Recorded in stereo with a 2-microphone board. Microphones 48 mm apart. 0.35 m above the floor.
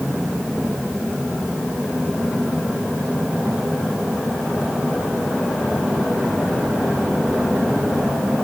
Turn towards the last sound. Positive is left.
No sound to turn to.